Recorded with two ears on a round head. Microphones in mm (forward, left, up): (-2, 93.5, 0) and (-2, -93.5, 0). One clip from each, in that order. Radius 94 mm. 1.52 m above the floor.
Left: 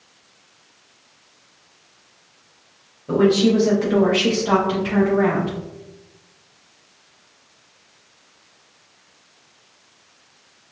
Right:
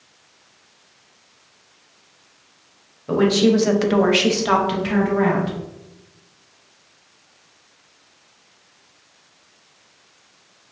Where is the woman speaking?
35° right (ahead or behind), 0.9 m.